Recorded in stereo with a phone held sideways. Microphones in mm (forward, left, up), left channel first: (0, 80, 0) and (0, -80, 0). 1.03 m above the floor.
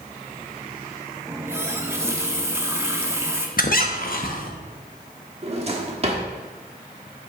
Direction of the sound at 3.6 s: 65° left (ahead or behind).